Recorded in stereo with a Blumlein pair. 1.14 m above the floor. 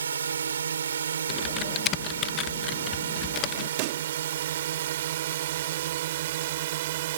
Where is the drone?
70° right; by 7.2 s 55° right.